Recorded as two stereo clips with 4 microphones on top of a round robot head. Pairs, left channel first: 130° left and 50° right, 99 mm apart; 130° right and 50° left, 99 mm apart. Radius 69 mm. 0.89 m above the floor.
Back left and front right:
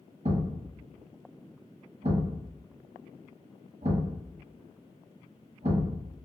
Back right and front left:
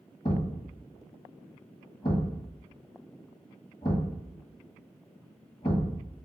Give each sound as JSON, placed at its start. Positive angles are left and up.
{"t": 0.2, "sound": "a thud", "azimuth_deg": -80, "distance_m": 1.3}